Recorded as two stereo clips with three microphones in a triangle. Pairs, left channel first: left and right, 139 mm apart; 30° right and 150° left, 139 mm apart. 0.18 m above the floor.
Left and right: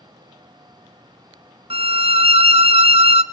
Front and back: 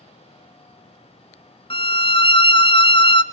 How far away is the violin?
About 0.6 m.